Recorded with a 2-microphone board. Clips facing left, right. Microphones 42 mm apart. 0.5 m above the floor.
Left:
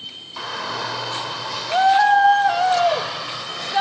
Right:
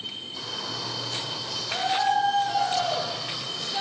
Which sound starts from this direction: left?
A shout, at 0.4 s.